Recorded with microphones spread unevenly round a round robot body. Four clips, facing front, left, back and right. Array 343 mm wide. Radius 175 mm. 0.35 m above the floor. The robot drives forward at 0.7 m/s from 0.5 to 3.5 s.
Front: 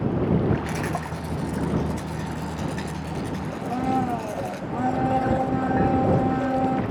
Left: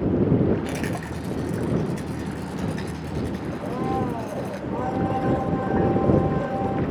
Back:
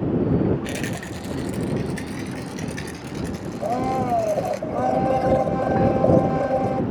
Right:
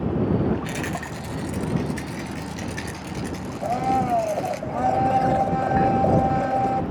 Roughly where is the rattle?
Behind left.